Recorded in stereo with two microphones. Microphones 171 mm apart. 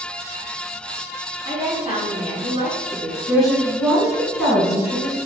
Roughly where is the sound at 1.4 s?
Right.